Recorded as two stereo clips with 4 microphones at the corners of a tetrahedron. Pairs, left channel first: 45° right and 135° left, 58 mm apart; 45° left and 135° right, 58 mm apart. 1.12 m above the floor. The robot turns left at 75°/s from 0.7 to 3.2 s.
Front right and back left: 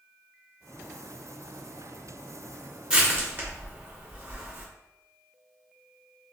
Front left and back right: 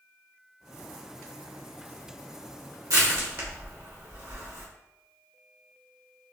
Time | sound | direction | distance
2.9 | crushing | 145° right | 1.8 m